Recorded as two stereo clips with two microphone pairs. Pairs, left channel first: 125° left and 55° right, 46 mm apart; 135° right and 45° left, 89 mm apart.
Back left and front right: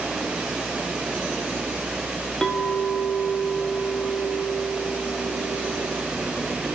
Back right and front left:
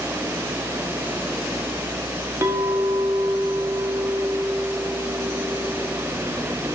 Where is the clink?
60° left, 0.8 m.